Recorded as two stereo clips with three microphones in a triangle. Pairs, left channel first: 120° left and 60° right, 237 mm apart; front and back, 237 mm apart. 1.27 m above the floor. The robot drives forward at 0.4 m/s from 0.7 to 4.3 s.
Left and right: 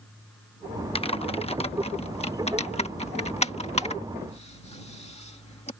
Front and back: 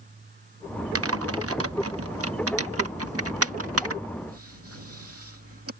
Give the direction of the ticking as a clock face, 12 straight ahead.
I don't hear ticking.